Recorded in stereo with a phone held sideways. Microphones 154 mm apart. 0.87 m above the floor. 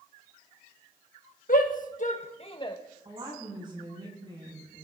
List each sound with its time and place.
1.5 s a shout: 65° left (ahead or behind), 1.5 m; by 2.8 s 25° left (ahead or behind), 0.9 m
3.0 s a woman speaking: 35° right (ahead or behind), 6.5 m